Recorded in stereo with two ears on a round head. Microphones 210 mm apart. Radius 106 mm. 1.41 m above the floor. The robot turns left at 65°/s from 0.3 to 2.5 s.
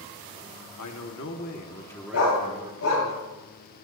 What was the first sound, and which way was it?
A man speaking, 85° left.